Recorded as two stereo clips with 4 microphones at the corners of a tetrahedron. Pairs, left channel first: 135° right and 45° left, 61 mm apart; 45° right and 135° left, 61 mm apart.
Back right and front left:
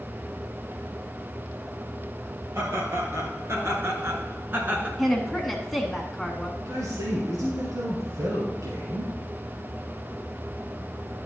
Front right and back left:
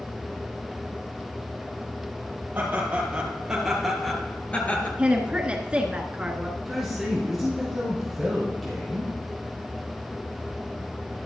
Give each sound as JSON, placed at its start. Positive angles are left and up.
{"t": 2.5, "sound": "laughter", "azimuth_deg": 75, "distance_m": 3.0}
{"t": 5.0, "sound": "a woman speaking", "azimuth_deg": 140, "distance_m": 1.2}
{"t": 6.6, "sound": "a man speaking", "azimuth_deg": 45, "distance_m": 3.5}